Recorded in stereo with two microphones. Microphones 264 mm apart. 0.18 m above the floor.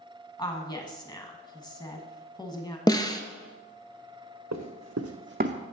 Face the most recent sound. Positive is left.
turn(degrees=-20)  # may be behind; listen again after turning